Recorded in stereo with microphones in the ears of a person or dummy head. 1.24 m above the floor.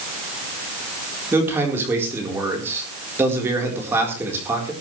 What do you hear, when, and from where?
1.3 s a man speaking: 15° right (ahead or behind), 4 m